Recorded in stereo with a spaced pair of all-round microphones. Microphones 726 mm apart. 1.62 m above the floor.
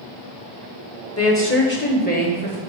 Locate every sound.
1.2 s a woman speaking: 20° left (ahead or behind), 0.9 m; by 2.6 s 10° left (ahead or behind), 2.5 m